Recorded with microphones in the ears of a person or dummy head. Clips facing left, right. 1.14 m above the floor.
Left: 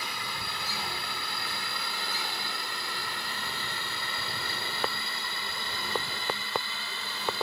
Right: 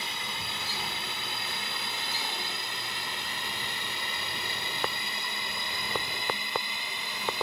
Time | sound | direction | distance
0.0 | a drone | 20° right (ahead or behind) | ?